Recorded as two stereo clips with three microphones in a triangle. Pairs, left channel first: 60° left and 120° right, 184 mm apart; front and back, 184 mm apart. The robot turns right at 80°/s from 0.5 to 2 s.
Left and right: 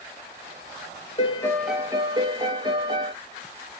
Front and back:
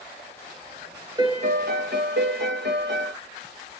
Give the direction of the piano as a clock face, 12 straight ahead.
8 o'clock.